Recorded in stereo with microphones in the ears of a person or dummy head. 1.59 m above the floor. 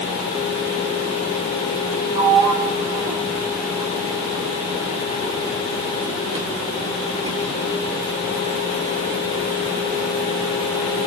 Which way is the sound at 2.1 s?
25° right (ahead or behind).